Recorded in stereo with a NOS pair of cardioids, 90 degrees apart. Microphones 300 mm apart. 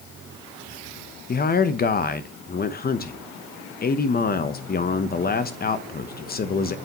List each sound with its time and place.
1.3 s a man speaking: 30° left, 0.9 m